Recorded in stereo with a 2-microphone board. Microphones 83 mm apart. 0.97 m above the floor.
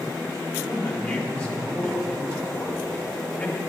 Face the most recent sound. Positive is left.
turn(degrees=10)  # may be behind; listen again after turning